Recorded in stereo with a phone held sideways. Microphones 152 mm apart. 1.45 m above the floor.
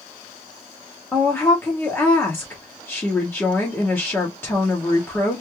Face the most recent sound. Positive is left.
turn(degrees=15)  # may be behind; listen again after turning